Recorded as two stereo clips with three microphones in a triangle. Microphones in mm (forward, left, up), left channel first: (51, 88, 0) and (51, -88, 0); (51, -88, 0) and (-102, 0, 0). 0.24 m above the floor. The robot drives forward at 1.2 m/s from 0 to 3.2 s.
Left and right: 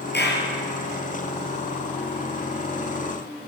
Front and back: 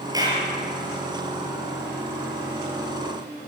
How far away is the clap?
About 4 m.